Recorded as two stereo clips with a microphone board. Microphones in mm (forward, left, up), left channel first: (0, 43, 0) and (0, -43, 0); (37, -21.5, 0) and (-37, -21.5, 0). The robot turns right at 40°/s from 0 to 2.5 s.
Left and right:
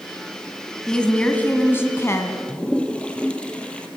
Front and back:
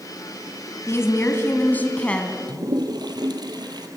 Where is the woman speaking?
10° left, 1.6 m; by 2.4 s 75° left, 1.6 m.